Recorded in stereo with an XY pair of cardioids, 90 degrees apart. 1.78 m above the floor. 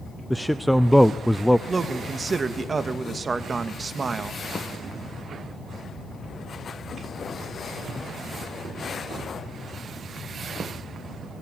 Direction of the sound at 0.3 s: 5° left.